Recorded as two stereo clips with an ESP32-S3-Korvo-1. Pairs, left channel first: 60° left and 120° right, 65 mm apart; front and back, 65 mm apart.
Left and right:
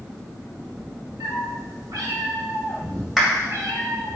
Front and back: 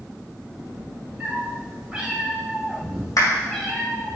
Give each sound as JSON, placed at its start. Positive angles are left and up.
{"t": 1.2, "sound": "a cat meowing", "azimuth_deg": -115, "distance_m": 3.0}
{"t": 3.2, "sound": "a clap", "azimuth_deg": -35, "distance_m": 2.0}